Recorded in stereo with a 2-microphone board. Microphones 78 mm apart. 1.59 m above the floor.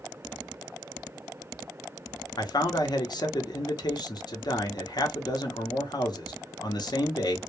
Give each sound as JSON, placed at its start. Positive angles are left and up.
{"t": 2.4, "sound": "a man speaking", "side_deg": 65, "distance_m": 0.6}